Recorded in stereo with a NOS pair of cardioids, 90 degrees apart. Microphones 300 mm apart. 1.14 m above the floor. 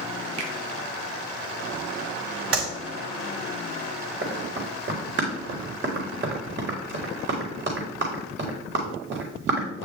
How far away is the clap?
About 4 m.